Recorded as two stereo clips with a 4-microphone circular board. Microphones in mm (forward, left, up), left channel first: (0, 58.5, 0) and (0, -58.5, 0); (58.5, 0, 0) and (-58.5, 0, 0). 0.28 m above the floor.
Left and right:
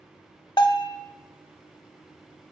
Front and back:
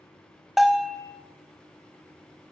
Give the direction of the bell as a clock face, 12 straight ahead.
9 o'clock.